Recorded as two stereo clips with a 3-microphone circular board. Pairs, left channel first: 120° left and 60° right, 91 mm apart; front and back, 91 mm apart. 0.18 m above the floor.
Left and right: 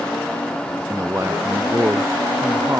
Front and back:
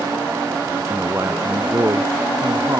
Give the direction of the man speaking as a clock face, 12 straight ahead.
4 o'clock.